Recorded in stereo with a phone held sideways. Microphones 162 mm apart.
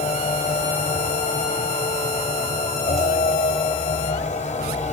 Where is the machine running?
50° left (ahead or behind), 3 m.